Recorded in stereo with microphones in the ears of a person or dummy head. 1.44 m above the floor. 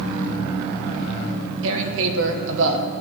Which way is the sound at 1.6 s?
70° right (ahead or behind).